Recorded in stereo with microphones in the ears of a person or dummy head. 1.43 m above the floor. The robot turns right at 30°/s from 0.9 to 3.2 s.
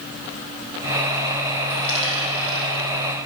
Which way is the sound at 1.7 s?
70° left (ahead or behind).